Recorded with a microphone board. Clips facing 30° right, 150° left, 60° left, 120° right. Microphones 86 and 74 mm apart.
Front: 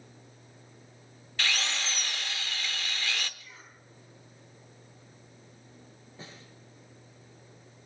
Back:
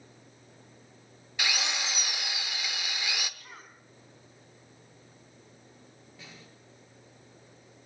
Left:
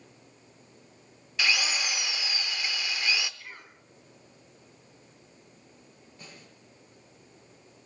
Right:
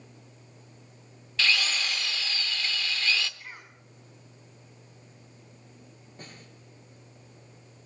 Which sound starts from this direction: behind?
A cough, at 3.4 s.